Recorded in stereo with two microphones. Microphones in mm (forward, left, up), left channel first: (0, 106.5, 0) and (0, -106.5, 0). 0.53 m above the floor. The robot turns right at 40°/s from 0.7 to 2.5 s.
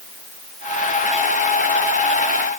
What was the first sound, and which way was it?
Only background noise.